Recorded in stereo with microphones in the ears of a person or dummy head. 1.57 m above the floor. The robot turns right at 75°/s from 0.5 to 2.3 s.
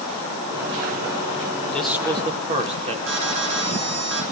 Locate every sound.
1.7 s a man speaking: 175° left, 2 m; by 3.0 s 145° right, 2 m
3.1 s an alarm: 60° right (ahead or behind), 7 m